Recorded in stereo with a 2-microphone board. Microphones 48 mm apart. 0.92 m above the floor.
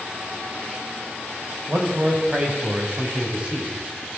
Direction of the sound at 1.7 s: 40° right (ahead or behind).